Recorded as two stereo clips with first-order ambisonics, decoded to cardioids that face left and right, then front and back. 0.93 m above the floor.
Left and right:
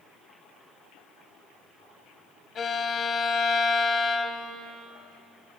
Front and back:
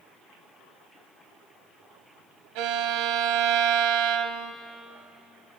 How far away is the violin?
About 2 m.